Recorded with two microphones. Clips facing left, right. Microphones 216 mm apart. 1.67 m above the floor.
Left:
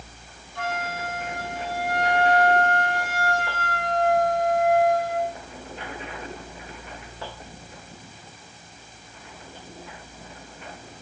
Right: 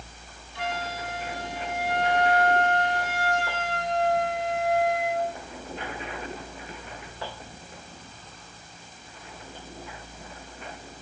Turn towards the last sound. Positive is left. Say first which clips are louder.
# left 2 dB
turn(degrees=50)  # may be behind; listen again after turning